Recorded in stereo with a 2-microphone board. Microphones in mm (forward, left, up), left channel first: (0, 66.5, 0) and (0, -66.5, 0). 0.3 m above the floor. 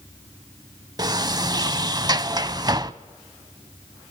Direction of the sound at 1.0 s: 30° right (ahead or behind).